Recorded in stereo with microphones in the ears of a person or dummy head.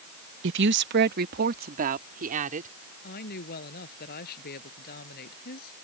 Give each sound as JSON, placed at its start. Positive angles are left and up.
{"t": 0.4, "sound": "a woman speaking", "side_deg": -60}
{"t": 3.0, "sound": "a woman speaking", "side_deg": 55}